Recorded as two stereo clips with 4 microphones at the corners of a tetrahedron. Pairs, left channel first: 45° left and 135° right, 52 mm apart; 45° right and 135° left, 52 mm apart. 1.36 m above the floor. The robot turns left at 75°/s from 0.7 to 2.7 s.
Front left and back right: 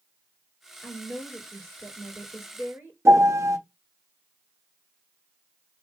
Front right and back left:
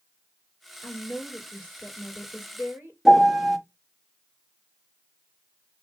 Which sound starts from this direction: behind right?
A piano, at 3.0 s.